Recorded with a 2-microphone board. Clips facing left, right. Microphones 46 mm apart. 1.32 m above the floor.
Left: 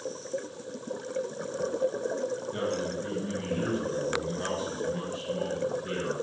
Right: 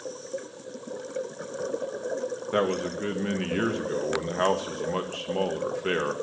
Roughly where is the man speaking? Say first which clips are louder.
Right 5 dB; right.